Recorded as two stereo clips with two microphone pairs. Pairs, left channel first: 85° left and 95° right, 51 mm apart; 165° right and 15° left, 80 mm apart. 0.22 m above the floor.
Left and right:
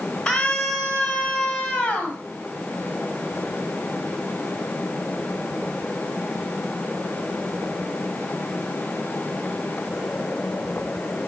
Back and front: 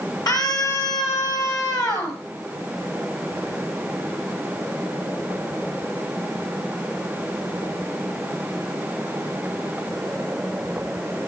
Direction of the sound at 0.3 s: 165° left.